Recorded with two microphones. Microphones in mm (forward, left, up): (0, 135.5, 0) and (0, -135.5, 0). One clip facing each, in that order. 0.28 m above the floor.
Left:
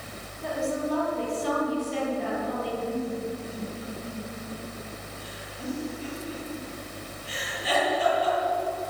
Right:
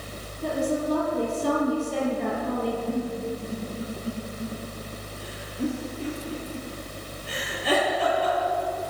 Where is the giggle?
70° right (ahead or behind), 8.5 m.